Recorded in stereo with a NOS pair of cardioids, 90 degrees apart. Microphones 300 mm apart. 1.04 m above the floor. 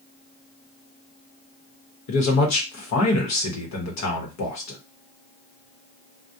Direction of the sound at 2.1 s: 65° left.